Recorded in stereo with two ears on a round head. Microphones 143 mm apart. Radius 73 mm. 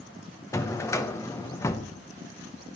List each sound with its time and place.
0.5 s a drawer: 15° left (ahead or behind), 0.8 m